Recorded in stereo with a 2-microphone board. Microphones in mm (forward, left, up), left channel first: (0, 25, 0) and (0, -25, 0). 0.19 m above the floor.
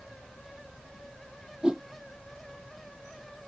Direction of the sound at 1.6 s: 15° right (ahead or behind).